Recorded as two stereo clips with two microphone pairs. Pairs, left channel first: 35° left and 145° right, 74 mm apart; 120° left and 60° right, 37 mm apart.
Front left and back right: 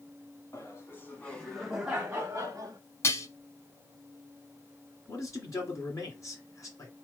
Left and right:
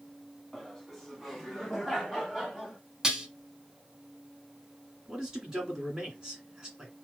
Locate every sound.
0.5 s laughter: 35° left, 1.3 m; by 2.8 s 155° right, 1.4 m
3.0 s dishes clattering: straight ahead, 0.9 m
5.1 s a man speaking: 5° left, 1.9 m